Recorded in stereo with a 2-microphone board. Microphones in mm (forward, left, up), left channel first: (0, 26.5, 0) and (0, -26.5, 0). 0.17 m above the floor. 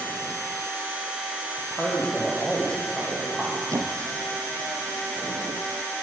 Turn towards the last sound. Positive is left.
turn(degrees=-75)  # may be behind; listen again after turning